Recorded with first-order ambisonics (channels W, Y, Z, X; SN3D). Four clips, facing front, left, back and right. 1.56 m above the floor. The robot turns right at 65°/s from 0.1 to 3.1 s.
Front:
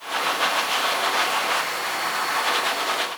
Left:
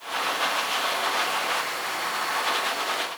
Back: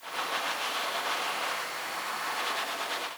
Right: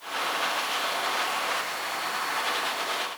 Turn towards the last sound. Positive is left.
No sound to turn to.